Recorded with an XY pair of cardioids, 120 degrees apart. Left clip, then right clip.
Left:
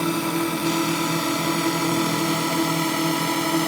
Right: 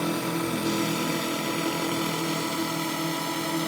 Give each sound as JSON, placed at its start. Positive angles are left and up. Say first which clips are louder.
{"t": 0.0, "sound": "a drone", "louder": "left 4 dB", "azimuth_deg": 35}